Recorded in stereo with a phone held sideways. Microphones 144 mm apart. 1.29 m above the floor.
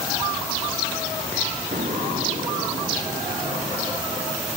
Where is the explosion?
70° right (ahead or behind).